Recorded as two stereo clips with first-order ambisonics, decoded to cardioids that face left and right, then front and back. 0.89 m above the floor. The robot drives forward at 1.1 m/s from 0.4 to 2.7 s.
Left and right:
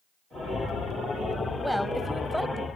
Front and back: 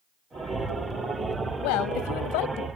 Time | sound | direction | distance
1.6 | a woman speaking | straight ahead | ?